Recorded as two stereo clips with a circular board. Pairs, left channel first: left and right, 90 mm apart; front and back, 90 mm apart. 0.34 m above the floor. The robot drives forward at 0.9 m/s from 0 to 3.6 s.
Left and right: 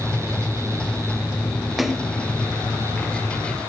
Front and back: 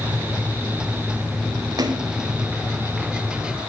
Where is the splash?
175° right, 0.8 m; by 2.1 s straight behind, 1.1 m.